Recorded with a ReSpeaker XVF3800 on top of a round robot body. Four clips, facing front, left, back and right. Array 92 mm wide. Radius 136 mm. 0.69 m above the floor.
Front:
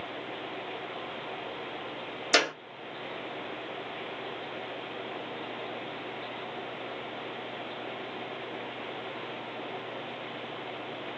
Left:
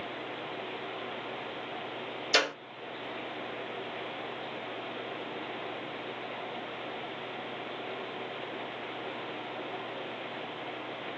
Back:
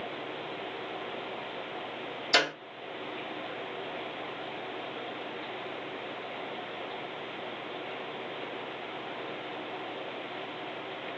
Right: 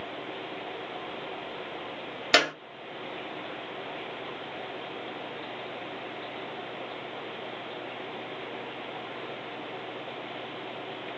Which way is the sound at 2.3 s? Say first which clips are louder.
Right 5 dB, front 1 dB; 70° right.